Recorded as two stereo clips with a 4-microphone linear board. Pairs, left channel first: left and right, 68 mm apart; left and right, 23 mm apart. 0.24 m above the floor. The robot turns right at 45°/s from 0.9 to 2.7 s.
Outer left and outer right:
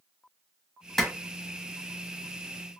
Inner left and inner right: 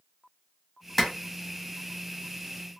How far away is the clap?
About 1.1 m.